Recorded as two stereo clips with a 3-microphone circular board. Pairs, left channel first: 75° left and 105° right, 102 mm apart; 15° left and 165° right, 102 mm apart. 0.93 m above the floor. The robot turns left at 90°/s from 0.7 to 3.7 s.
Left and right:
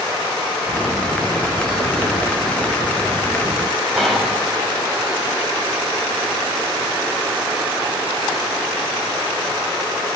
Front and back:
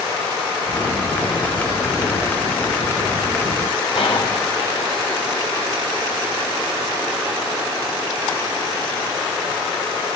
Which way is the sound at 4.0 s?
15° right.